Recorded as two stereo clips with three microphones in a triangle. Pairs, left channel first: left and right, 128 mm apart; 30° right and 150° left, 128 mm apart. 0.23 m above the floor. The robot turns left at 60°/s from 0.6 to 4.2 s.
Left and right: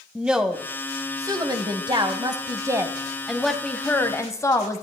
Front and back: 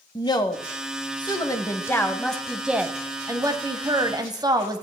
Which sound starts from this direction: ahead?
A woman speaking, at 0.1 s.